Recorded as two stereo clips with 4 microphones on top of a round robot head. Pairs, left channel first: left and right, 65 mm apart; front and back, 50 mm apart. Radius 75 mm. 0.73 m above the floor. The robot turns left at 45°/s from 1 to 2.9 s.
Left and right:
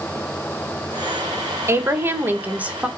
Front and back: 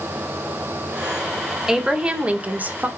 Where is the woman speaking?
100° right, 0.7 m; by 2.9 s 155° right, 0.7 m.